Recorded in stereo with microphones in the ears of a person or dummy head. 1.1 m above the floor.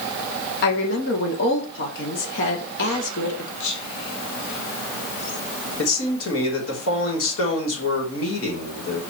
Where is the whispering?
65° left (ahead or behind), 2.5 m.